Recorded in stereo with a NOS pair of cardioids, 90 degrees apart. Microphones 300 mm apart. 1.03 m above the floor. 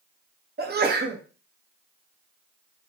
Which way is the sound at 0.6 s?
35° right.